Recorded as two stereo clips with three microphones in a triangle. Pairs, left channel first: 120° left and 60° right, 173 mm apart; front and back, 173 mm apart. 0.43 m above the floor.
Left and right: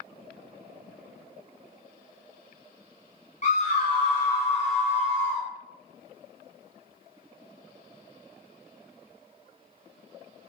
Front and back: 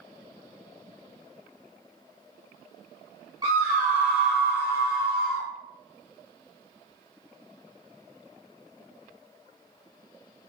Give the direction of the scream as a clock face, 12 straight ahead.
7 o'clock.